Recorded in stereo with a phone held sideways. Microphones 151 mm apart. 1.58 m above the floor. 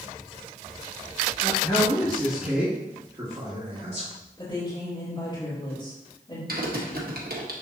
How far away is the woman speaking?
About 3 m.